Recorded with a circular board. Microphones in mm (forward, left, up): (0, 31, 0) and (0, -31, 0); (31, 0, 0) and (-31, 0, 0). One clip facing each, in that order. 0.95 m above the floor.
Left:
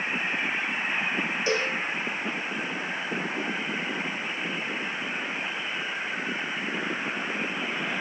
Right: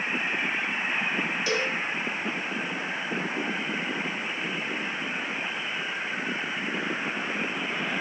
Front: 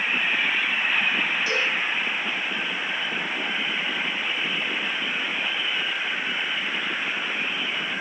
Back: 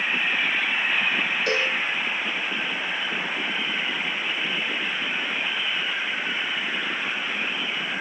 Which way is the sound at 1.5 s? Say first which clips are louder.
Left 2 dB, back 1 dB; 150° left.